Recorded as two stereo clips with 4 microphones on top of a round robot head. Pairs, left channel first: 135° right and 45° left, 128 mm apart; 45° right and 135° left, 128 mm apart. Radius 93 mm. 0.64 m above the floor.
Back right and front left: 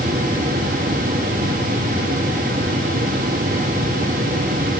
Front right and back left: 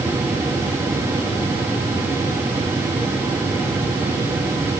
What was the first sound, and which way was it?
Only background noise.